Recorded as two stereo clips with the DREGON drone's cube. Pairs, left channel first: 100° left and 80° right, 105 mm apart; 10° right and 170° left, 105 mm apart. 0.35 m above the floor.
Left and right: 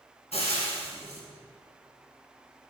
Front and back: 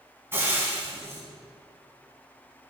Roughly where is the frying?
Left.